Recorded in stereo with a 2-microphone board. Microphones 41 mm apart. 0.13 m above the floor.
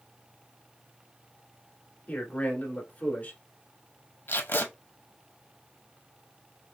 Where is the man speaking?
35° left (ahead or behind), 1.4 m.